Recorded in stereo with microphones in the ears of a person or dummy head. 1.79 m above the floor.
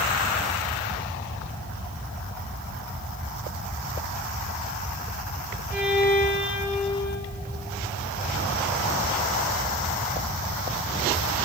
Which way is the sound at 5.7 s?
5° right (ahead or behind).